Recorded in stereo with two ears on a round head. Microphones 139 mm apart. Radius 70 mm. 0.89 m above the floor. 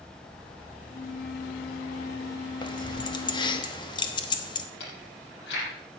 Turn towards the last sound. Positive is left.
turn(degrees=80)